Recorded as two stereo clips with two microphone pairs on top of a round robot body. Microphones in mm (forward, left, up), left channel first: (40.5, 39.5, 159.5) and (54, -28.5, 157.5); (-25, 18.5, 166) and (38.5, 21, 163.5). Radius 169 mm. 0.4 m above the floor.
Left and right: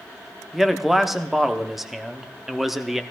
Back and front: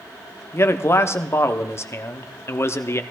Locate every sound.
0.5 s a man speaking: 165° right, 1.0 m